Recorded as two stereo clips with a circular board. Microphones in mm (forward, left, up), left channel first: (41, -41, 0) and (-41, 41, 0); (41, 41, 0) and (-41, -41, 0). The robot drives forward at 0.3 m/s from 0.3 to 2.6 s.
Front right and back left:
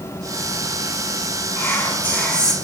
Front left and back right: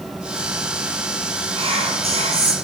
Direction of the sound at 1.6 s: 110° right.